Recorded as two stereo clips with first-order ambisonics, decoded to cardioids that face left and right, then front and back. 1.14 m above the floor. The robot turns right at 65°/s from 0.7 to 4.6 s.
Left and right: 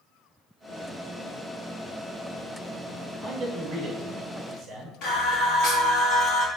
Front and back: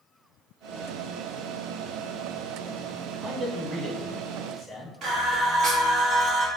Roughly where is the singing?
Behind left.